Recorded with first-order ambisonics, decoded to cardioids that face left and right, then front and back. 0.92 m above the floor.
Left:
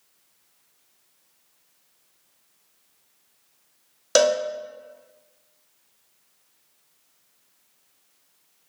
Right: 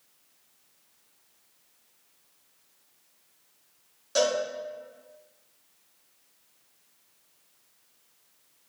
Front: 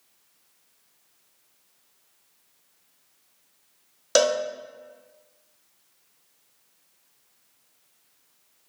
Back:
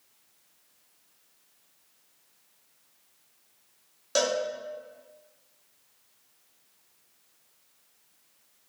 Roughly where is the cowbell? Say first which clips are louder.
Left 6 dB, front 6 dB; ahead left.